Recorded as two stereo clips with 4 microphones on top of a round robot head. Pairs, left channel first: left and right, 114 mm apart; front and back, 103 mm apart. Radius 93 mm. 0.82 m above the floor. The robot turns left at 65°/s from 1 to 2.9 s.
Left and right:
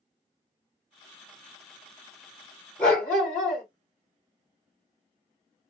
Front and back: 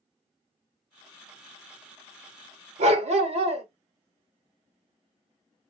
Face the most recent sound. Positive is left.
turn(degrees=165)